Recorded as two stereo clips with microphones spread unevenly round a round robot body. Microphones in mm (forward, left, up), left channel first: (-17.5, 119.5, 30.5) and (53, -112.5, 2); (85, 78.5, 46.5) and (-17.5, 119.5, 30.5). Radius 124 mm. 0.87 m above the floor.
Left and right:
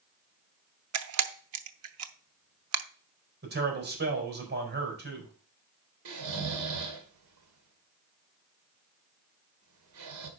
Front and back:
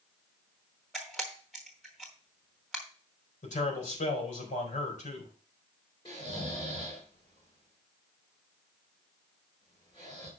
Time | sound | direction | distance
0.9 | a camera shutter | 105° right | 0.8 m
3.4 | a man speaking | 25° right | 4 m
6.0 | snoring | 90° right | 2 m